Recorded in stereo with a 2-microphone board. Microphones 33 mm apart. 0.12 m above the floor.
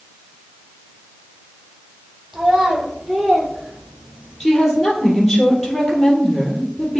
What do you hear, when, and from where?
2.3 s a child speaking: 30° right (ahead or behind), 1.9 m; by 4.4 s 50° right (ahead or behind), 1.3 m
4.4 s a woman speaking: 10° left (ahead or behind), 3 m